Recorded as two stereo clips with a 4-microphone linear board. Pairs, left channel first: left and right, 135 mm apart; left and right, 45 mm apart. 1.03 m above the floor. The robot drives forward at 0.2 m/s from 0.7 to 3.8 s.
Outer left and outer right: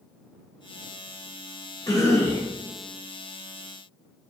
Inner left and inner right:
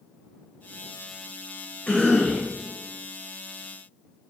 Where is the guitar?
I don't hear a guitar.